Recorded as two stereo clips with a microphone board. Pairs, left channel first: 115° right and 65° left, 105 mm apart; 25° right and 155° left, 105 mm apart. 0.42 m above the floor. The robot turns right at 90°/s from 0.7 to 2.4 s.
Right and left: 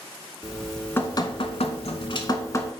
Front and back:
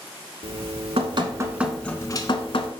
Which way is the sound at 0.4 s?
155° left.